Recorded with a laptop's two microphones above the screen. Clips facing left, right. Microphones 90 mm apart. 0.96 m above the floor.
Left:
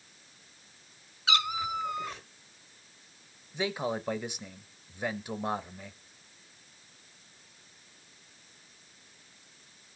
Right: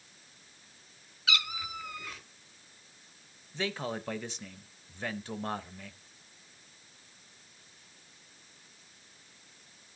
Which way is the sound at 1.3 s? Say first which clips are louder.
Left 7 dB; 30° left (ahead or behind).